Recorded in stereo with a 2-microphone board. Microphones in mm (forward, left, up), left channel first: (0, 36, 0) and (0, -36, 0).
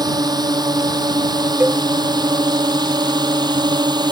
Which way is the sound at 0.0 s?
65° right (ahead or behind).